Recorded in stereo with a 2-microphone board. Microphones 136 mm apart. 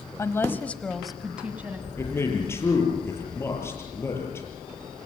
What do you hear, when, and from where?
0.2 s a woman speaking: 20° left (ahead or behind), 1.6 m; by 1.9 s 15° right (ahead or behind), 2 m
2.0 s a man speaking: 20° left (ahead or behind), 7 m